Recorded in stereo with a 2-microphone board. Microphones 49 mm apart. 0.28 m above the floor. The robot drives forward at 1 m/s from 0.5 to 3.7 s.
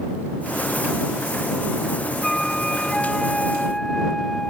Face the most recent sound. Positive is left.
turn(degrees=10)  # may be behind; listen again after turning